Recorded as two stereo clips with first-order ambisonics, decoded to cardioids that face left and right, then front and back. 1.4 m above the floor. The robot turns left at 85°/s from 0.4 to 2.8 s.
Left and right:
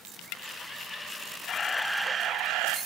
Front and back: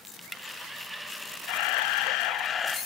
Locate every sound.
1.5 s a camera shutter: 35° left, 0.8 m; by 2.8 s 75° right, 0.8 m